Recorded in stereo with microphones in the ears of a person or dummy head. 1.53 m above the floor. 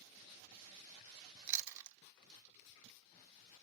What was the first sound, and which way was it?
Chewing, 60° right (ahead or behind).